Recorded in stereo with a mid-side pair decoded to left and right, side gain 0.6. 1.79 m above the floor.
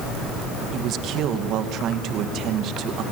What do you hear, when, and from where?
0.7 s a man speaking: 60° right, 2.5 m